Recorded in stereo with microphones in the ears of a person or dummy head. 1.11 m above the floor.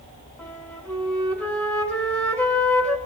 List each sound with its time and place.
0.4 s a flute: 5° left (ahead or behind), 2 m